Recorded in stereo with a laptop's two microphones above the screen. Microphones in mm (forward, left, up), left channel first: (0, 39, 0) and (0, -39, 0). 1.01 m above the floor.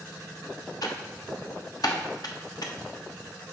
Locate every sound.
0.8 s typing on a keyboard: 60° left (ahead or behind), 1.2 m